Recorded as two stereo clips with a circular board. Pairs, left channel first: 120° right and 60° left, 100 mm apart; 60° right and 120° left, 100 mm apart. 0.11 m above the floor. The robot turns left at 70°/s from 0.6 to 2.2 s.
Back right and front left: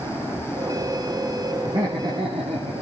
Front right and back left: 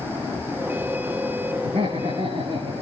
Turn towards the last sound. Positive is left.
turn(degrees=70)